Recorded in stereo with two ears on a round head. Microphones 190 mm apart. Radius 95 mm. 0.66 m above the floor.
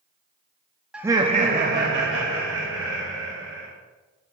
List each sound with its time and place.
0.9 s laughter: 5° right (ahead or behind), 0.6 m; by 3.7 s 70° right (ahead or behind), 2 m